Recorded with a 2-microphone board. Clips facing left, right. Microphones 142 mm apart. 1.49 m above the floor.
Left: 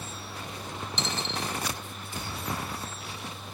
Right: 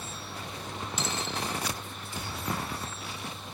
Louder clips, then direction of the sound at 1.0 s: Left 1 dB; 5° right (ahead or behind).